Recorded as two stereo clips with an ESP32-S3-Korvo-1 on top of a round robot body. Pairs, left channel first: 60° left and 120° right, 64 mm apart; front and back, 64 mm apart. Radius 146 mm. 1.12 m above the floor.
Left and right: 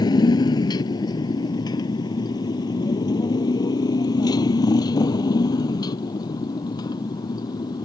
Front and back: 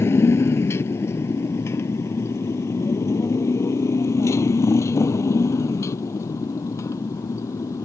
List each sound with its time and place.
0.0 s a motorcycle: 55° left; by 7.8 s 45° left